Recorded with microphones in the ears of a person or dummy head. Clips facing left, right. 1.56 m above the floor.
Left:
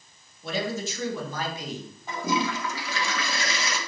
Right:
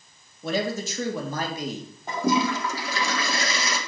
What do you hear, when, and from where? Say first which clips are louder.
0.4 s a man speaking: right 3 dB; 40° right (ahead or behind), 2.5 m
2.1 s a toilet flushing: right 4 dB; 35° right (ahead or behind), 1.8 m